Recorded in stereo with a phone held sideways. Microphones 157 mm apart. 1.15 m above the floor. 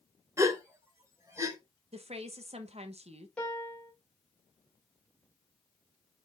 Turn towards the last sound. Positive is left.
turn(degrees=5)  # may be behind; listen again after turning